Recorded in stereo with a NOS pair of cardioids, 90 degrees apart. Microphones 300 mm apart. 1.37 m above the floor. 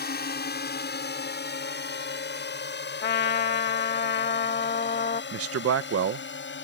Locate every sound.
0.0 s a drone: 30° left; by 6.6 s 35° left
3.0 s a trumpet: 30° left
5.3 s a man speaking: 45° right